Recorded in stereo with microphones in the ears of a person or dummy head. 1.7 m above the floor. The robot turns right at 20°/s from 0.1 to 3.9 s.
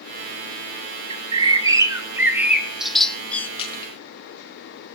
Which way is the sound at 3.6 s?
35° left (ahead or behind).